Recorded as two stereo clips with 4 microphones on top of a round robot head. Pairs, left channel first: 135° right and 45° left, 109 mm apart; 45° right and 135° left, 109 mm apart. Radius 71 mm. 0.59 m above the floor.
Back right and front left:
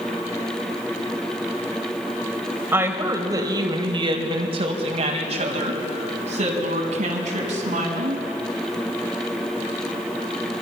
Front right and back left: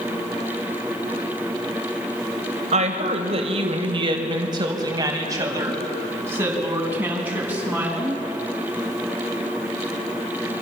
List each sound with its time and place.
2.7 s a woman speaking: 115° left, 3 m; by 8.2 s 55° left, 6.5 m